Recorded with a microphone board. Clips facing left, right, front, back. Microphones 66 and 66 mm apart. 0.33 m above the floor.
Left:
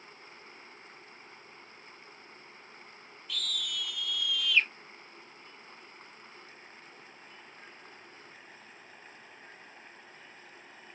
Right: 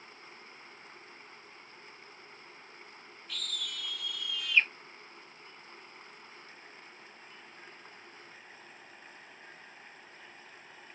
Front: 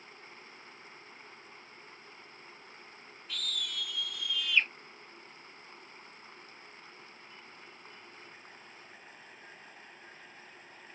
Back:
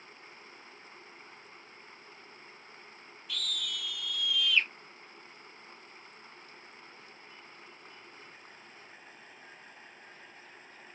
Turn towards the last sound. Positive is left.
turn(degrees=-45)